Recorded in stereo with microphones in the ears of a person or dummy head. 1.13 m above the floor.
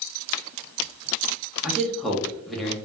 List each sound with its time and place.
1.6 s a man speaking: 5° left (ahead or behind), 0.8 m